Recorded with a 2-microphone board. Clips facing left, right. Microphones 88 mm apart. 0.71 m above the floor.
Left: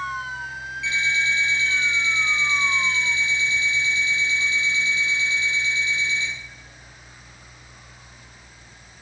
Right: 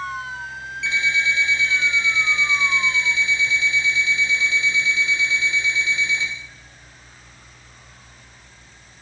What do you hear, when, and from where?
0.8 s an alarm clock: 75° right (ahead or behind), 1.2 m